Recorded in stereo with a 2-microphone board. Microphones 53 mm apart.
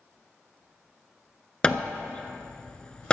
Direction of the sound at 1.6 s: 20° left (ahead or behind).